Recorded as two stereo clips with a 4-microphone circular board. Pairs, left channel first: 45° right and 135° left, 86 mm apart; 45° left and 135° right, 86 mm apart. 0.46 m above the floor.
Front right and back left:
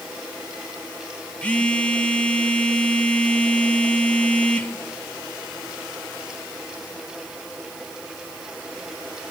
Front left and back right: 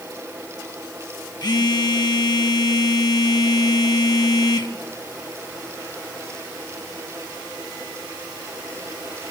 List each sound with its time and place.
1.4 s a phone buzzing: 25° left, 0.8 m